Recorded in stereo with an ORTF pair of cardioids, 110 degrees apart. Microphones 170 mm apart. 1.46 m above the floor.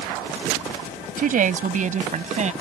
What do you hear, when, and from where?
1.2 s a woman speaking: 55° right; by 2.5 s 40° right